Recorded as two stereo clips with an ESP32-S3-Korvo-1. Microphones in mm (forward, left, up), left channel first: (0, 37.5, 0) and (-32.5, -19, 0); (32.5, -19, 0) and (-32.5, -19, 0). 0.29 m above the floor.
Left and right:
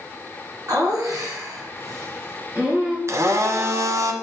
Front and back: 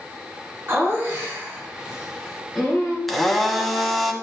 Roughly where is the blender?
Right.